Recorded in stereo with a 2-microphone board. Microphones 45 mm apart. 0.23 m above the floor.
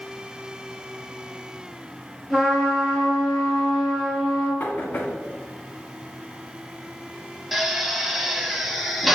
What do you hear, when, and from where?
2.3 s a trumpet: 10° left (ahead or behind), 3.5 m
4.6 s knocking: 45° left (ahead or behind), 2 m
7.5 s a drill: 5° right (ahead or behind), 1.1 m